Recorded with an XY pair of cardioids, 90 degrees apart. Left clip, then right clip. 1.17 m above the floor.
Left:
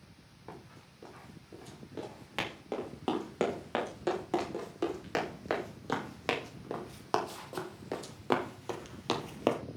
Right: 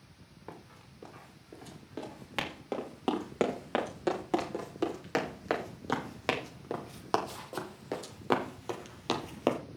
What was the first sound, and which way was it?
Running footsteps, 20° right.